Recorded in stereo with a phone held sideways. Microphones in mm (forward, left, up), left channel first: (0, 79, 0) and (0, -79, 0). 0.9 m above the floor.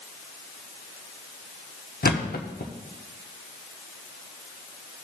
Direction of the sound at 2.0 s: 65° left (ahead or behind).